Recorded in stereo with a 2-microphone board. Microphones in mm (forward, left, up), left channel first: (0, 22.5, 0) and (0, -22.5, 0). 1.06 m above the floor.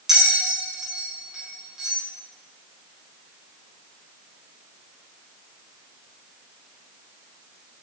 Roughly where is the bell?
Centre.